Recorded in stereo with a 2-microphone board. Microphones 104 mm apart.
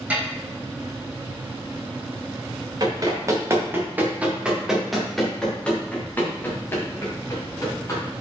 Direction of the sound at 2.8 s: 35° right (ahead or behind).